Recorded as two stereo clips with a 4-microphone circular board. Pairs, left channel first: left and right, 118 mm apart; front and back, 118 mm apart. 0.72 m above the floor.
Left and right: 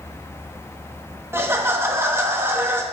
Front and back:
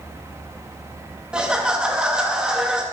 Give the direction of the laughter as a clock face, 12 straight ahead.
4 o'clock.